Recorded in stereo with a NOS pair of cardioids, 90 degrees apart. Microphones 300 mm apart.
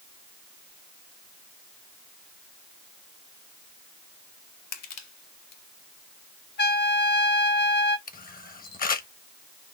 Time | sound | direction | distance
4.7 | crushing | 60° left | 2 m
6.6 | a trumpet | 35° left | 0.9 m
8.1 | a camera shutter | 30° left | 1.2 m